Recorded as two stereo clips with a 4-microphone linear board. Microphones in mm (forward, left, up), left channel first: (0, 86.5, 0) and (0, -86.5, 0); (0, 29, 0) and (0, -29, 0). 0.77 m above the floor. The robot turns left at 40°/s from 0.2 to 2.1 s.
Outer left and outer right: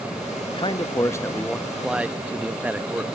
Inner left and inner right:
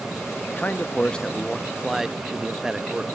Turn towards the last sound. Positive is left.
turn(degrees=-15)